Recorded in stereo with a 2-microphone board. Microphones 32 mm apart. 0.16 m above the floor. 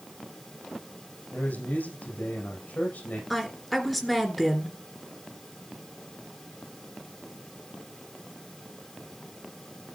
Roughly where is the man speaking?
Left.